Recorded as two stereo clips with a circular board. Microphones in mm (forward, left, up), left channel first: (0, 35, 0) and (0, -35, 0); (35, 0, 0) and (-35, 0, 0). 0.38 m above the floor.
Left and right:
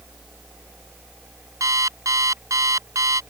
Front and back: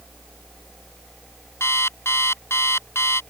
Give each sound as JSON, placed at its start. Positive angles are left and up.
{"t": 1.6, "sound": "an alarm clock", "azimuth_deg": -50}